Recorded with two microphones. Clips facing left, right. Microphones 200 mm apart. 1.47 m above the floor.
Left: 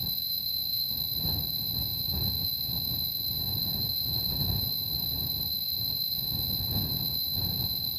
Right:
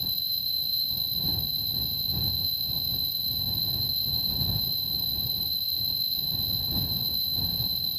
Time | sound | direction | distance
0.0 | an insect | 30° right (ahead or behind) | ?